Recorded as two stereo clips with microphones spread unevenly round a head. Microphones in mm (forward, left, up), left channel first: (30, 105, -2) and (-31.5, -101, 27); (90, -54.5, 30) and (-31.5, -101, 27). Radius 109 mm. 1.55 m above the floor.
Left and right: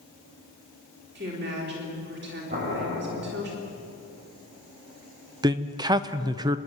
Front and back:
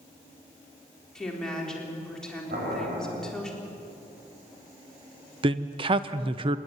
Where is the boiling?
155° right, 6 m.